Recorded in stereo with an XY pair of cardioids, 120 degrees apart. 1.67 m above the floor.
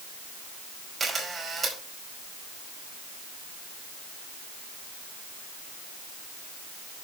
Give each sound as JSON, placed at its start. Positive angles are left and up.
{"t": 1.0, "sound": "a camera shutter", "azimuth_deg": -30, "distance_m": 4.5}